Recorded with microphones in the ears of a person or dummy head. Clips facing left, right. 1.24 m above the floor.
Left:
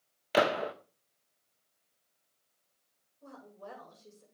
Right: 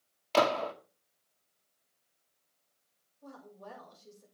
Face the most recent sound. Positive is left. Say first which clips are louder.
# left 1 dB
turn(degrees=55)  # may be behind; listen again after turning